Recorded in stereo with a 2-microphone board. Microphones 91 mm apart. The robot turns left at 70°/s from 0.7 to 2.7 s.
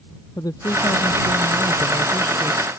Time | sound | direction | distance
0.4 | a woman speaking | 130° left | ?